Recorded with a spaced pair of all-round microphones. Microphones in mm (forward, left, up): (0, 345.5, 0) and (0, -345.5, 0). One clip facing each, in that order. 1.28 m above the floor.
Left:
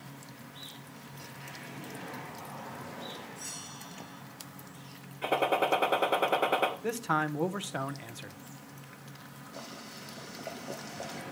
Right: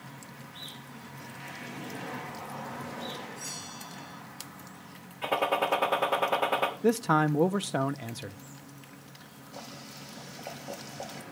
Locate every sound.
3.4 s a bell: 60° left (ahead or behind), 7.5 m
5.2 s a gunshot: 30° right (ahead or behind), 1.2 m
6.8 s a man speaking: 70° right (ahead or behind), 0.6 m
9.5 s boiling: 25° right (ahead or behind), 1.3 m